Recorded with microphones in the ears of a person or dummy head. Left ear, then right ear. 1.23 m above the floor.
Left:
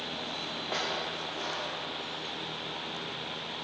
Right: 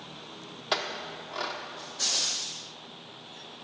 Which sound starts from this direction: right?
A clink, at 0.7 s.